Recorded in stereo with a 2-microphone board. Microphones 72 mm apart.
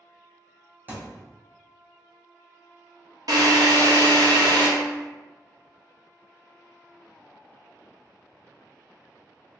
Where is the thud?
30° right (ahead or behind), 0.9 m.